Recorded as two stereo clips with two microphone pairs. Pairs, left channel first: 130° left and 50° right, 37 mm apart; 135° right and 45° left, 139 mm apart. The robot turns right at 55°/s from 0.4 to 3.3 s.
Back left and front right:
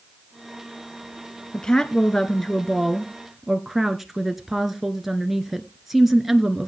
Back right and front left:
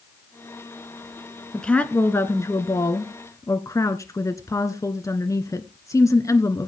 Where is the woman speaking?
140° left, 1.1 m; by 6.7 s 125° right, 1.1 m.